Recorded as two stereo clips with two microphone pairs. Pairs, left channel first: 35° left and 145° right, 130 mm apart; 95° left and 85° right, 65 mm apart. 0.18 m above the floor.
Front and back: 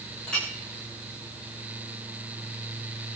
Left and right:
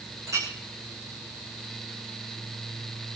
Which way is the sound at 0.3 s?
50° right.